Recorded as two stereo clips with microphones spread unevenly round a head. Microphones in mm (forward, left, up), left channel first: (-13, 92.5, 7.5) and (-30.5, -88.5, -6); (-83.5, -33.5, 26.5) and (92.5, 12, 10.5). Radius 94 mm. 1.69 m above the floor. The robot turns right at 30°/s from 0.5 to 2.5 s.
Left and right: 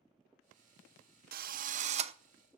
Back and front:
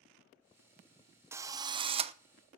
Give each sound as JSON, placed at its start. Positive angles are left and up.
{"t": 1.3, "sound": "a drill", "azimuth_deg": -65, "distance_m": 0.8}